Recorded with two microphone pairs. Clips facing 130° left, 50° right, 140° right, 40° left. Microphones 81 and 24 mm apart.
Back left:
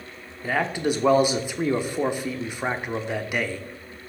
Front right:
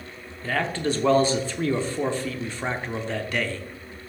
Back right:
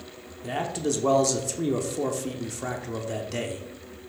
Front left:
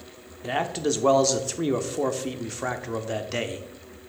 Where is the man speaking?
75° left, 0.8 m.